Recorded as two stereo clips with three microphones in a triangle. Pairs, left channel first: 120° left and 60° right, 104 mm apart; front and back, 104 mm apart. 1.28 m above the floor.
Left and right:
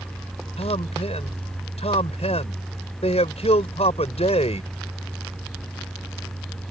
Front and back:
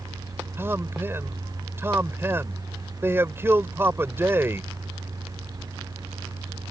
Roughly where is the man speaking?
Left.